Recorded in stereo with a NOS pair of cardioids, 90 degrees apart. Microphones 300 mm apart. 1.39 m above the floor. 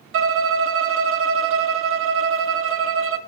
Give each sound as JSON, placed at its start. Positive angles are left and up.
{"t": 0.1, "sound": "a violin", "azimuth_deg": -45, "distance_m": 0.7}